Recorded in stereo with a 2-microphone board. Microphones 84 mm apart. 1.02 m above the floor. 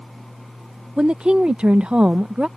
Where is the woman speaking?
15° right (ahead or behind).